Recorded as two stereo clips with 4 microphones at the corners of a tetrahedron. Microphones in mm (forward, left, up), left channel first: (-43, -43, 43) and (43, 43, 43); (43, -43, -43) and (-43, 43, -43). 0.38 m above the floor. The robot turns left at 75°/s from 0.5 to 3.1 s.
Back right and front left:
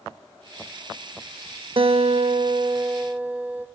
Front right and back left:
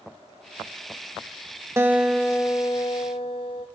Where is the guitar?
75° left, 0.6 m; by 3.7 s 25° right, 0.6 m.